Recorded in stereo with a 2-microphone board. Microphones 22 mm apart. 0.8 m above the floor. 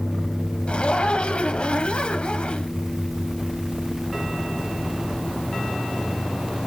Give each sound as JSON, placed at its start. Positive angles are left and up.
{"t": 0.7, "sound": "a zipper", "side_deg": 55, "distance_m": 1.4}